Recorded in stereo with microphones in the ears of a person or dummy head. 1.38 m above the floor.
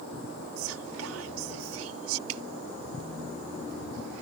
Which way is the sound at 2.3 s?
85° right.